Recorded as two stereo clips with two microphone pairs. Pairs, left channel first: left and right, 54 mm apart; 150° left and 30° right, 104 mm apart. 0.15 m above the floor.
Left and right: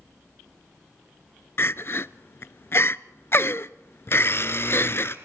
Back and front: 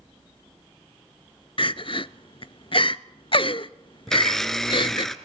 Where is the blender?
65° left, 1.5 m.